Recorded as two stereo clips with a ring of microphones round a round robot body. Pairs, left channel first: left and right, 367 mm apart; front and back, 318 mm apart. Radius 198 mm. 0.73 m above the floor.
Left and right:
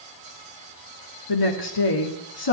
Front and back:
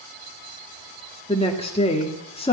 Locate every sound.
1.3 s a woman speaking: 70° left, 2.0 m